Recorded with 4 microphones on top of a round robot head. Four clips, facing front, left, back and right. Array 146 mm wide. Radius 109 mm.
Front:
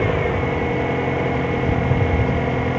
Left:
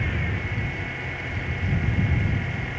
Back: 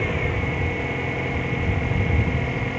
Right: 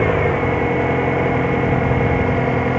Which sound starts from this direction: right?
An engine running, at 0.0 s.